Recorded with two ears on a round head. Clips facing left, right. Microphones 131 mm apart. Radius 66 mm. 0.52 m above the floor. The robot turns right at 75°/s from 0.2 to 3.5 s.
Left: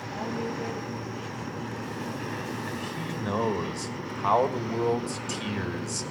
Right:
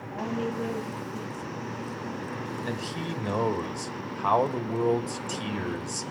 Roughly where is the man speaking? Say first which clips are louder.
Right 1 dB; ahead right.